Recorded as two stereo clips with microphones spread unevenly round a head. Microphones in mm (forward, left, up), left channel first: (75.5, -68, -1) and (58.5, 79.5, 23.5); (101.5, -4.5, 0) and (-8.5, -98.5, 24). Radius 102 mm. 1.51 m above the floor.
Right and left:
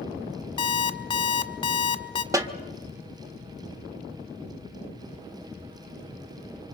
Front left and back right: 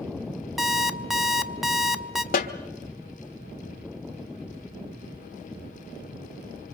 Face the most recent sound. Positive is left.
turn(degrees=45)